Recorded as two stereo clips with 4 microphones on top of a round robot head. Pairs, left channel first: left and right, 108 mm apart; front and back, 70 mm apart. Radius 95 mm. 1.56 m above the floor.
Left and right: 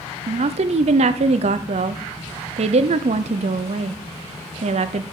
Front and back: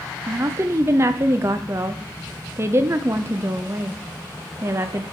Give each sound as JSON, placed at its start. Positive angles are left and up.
{"t": 0.3, "sound": "a woman speaking", "azimuth_deg": -120, "distance_m": 0.5}